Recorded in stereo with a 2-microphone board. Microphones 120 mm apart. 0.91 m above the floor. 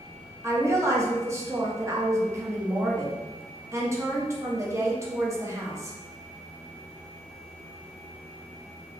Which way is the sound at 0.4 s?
25° right (ahead or behind).